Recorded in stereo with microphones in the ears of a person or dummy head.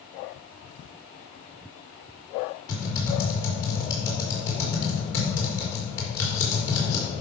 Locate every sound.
2.7 s typing on a keyboard: 25° left (ahead or behind), 4 m